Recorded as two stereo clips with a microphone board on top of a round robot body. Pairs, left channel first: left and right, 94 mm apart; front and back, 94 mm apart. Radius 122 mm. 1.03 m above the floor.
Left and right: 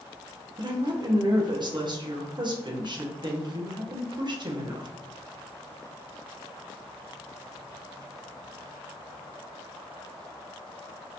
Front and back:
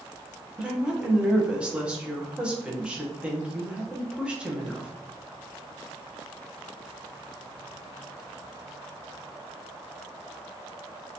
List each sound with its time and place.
0.6 s a woman speaking: 105° right, 1.1 m